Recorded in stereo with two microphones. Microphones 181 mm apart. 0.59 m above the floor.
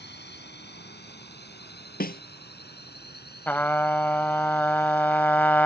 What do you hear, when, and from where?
0.0 s a drone: 70° left (ahead or behind); by 5.7 s 60° left (ahead or behind)
2.0 s a snare drum: 55° left (ahead or behind)
3.5 s a trumpet: 10° left (ahead or behind)